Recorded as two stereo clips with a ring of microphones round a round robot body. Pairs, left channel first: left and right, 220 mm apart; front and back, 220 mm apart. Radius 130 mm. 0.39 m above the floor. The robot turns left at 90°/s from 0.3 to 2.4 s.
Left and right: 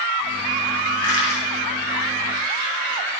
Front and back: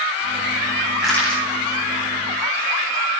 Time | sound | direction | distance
1.0 | crushing | 95° left | 9.5 m